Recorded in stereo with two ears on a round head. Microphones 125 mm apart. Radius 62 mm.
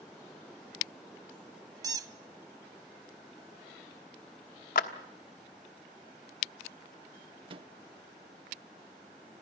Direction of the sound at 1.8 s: 25° right (ahead or behind).